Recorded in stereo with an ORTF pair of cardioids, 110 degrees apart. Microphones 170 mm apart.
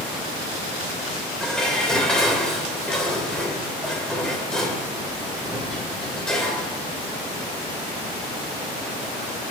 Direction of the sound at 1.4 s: 5° left.